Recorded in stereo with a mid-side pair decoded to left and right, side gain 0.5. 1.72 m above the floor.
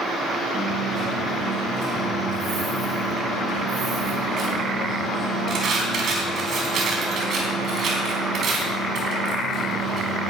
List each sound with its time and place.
0.5 s a dropped coin: 60° right, 4.5 m